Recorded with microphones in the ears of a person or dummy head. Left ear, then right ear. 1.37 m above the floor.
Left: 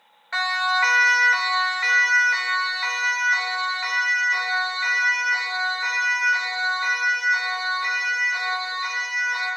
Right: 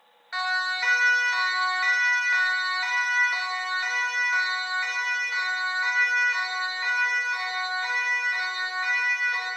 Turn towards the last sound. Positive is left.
turn(degrees=-15)  # may be behind; listen again after turning